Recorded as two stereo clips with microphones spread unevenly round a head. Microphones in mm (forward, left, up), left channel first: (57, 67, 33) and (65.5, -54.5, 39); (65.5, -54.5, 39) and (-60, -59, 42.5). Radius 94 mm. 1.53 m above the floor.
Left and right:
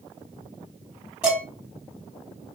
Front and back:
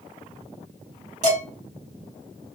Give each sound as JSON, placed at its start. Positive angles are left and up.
{"t": 1.2, "sound": "dishes clattering", "azimuth_deg": -165, "distance_m": 1.4}